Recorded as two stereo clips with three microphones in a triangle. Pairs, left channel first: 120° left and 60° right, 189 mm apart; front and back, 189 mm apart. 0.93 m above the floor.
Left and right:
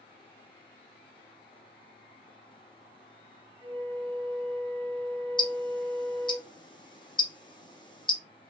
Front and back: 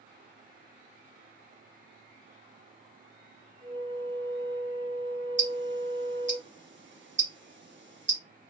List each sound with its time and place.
3.6 s a flute: 125° right, 0.6 m
5.4 s ticking: 175° right, 0.7 m